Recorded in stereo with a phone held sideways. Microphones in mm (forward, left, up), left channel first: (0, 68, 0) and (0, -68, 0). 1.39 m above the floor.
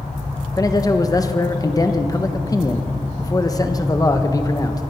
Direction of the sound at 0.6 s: 25° left (ahead or behind).